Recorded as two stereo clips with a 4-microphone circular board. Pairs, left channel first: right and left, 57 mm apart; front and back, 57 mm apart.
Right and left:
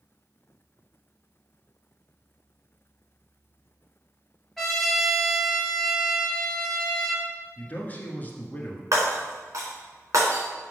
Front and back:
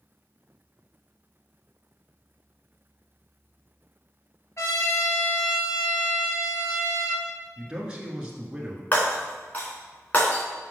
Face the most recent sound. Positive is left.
turn(degrees=55)